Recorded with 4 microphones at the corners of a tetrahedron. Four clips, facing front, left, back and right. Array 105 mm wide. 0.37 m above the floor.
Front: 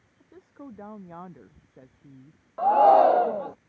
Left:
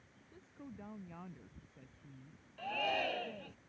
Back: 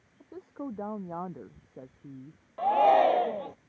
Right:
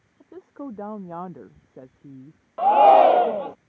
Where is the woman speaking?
115° right; by 2.4 s 110° right.